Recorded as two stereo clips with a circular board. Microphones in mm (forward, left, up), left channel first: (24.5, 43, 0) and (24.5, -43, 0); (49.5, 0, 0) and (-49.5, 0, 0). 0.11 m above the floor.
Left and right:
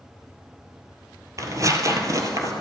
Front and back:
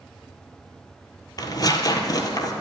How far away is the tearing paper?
About 1.5 m.